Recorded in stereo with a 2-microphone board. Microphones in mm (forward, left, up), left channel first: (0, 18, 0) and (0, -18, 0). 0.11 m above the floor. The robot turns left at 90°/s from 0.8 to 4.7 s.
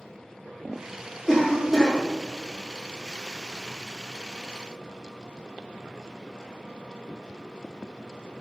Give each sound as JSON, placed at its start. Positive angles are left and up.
{"t": 1.3, "sound": "a cough", "side_deg": 20, "distance_m": 1.3}